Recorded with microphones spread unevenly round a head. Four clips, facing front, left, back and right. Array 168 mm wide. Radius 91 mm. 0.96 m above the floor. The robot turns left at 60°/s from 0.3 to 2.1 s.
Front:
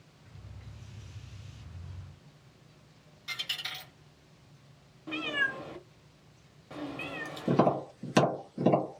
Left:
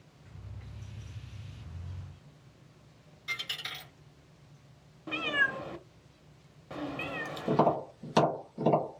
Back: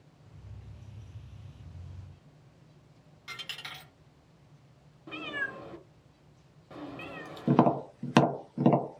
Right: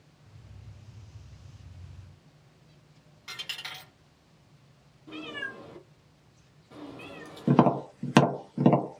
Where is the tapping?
95° right, 0.9 m.